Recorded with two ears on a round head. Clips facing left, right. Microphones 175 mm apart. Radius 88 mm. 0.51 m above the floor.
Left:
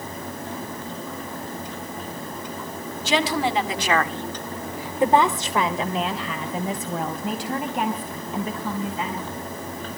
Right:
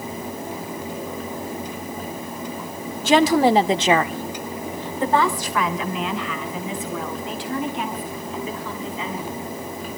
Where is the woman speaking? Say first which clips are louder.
Right 7 dB; 45° right (ahead or behind), 1.6 m; by 9.3 s 45° left (ahead or behind), 5.5 m.